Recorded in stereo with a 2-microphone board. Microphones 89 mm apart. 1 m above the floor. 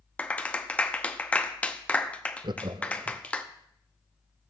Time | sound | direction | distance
0.2 | a clap | 15° left (ahead or behind) | 0.8 m
2.4 | laughter | 60° right (ahead or behind) | 0.5 m